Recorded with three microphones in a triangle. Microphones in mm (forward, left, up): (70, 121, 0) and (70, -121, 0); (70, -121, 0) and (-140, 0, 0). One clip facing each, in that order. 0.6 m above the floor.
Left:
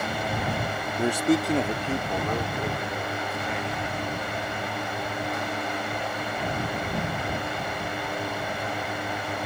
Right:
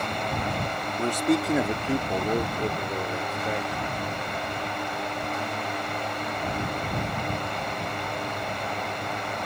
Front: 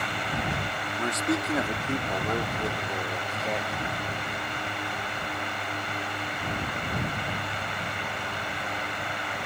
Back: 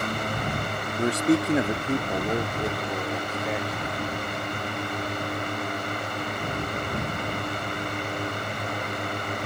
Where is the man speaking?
155° left; by 3.9 s 125° right.